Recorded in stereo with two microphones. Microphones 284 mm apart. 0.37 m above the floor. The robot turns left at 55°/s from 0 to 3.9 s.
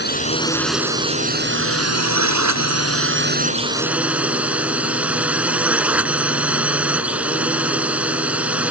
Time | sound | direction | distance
0.0 | a drone | 40° left | ?